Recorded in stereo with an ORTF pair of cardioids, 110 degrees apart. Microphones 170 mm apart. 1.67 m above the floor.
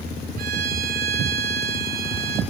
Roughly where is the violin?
Right.